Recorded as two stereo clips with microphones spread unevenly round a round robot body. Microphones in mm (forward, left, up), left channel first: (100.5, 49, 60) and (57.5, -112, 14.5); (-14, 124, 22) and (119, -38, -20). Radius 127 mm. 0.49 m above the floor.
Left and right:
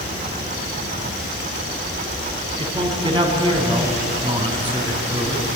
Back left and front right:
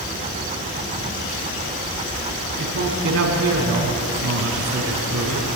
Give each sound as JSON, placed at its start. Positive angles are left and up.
{"t": 2.6, "sound": "a man speaking", "azimuth_deg": -45, "distance_m": 5.5}